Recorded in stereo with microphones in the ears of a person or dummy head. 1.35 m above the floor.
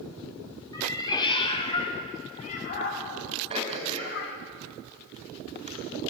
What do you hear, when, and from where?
0.7 s a cat meowing: 15° left (ahead or behind), 1.5 m; by 4.4 s 50° left (ahead or behind), 1.5 m
3.5 s throat clearing: 30° right (ahead or behind), 3 m